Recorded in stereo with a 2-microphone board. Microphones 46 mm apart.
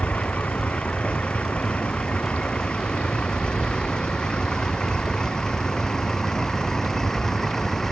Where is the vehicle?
30° left (ahead or behind); by 7.9 s 10° left (ahead or behind).